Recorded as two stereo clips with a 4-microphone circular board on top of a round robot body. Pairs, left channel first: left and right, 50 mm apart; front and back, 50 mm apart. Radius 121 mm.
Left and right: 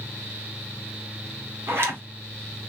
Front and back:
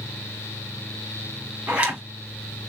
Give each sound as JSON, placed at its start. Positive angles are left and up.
{"t": 1.7, "sound": "a zipper", "azimuth_deg": -115, "distance_m": 2.0}